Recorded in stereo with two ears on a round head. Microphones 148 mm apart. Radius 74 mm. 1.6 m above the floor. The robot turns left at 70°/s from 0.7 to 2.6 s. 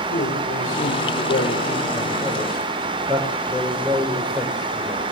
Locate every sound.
0.1 s a man speaking: 130° left, 4.5 m; by 5.0 s 5° right, 4.5 m